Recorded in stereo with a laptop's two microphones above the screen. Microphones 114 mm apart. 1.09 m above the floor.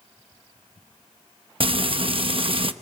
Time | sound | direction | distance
1.6 | frying | 50° right (ahead or behind) | 0.8 m